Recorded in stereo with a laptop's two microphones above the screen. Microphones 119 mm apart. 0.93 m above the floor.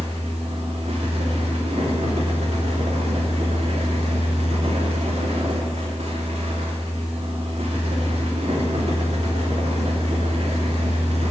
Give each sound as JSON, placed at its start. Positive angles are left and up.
{"t": 0.0, "sound": "a fan", "side_deg": -60, "distance_m": 3.0}